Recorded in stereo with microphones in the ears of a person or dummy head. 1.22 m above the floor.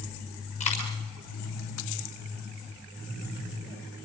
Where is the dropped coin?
35° left (ahead or behind), 6.5 m.